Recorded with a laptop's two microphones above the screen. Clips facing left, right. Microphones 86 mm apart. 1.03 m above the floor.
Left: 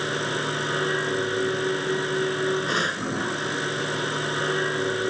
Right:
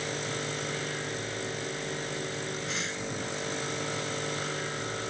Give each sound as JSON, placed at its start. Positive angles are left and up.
{"t": 0.0, "sound": "a machine running", "side_deg": 55}